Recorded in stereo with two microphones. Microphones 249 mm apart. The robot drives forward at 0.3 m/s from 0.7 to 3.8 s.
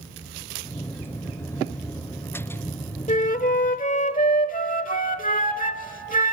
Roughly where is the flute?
Left.